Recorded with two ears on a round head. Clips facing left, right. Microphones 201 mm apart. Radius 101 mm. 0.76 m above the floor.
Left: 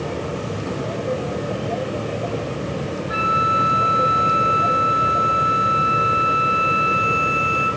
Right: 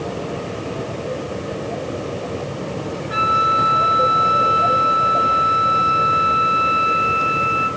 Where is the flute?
5° left (ahead or behind), 0.7 m.